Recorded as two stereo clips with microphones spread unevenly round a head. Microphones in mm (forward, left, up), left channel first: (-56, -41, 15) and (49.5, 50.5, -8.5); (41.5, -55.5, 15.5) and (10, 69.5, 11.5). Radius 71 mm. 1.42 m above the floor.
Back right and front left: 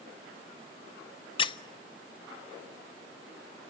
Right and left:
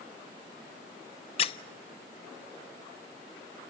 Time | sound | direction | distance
1.4 | a squeak | 110° right | 0.6 m